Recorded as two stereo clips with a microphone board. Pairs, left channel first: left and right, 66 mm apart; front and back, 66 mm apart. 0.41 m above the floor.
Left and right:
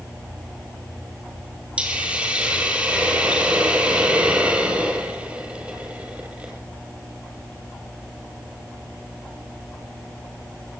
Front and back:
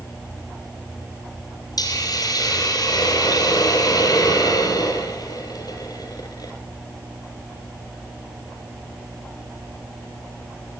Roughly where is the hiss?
Ahead.